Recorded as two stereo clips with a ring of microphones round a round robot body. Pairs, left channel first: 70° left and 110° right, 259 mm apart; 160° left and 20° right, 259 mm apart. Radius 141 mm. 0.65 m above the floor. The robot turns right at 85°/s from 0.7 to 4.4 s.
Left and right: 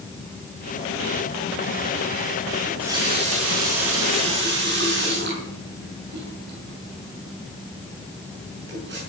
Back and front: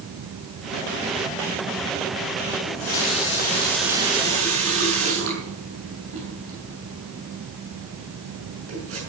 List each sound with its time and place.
2.6 s a running tap: 145° left, 6.5 m; by 9.0 s 60° right, 6.5 m